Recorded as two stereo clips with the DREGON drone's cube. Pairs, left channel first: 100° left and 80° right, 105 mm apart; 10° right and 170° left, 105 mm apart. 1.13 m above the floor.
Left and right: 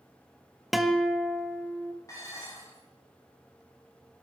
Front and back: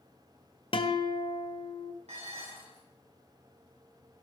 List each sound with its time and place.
0.7 s a guitar: 10° left, 1.3 m
2.1 s dishes clattering: 160° left, 7.5 m